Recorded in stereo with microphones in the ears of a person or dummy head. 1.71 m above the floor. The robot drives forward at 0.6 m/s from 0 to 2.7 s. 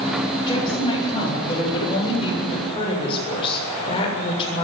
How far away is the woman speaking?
About 9 m.